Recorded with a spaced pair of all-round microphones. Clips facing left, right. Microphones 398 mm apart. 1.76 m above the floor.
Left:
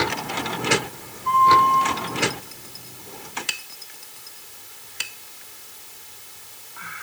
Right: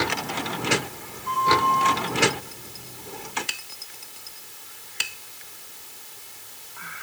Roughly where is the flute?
Left.